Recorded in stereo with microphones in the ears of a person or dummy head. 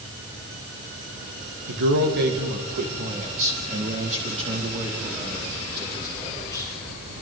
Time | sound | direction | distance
1.7 | a man speaking | 70° right (ahead or behind) | 2 m